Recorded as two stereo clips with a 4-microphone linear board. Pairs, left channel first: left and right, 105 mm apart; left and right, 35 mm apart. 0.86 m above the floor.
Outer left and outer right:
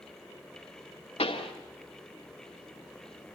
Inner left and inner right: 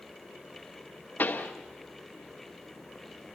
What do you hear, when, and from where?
1.2 s a pop: 65° left (ahead or behind), 2.5 m